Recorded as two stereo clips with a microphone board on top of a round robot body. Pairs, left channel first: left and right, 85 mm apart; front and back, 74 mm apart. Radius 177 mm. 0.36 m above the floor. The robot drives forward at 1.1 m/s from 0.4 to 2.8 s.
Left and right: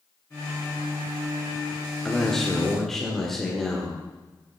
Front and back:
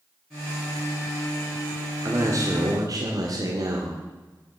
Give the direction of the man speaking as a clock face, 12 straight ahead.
6 o'clock.